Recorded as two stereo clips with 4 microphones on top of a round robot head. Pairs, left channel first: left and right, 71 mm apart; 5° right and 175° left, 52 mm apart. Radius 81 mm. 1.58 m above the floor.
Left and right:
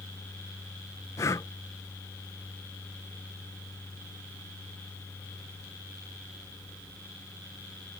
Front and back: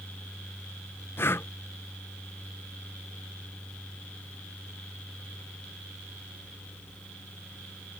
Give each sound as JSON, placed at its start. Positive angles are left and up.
{"t": 1.2, "sound": "breathing", "azimuth_deg": 35}